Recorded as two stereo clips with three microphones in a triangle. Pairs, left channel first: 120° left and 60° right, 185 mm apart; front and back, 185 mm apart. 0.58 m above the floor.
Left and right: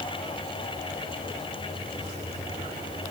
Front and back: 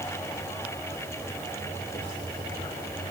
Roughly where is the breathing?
I don't hear breathing.